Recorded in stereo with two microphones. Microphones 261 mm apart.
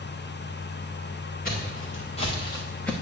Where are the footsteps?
35° left (ahead or behind), 2.5 m; by 2.9 s 5° left (ahead or behind), 1.4 m.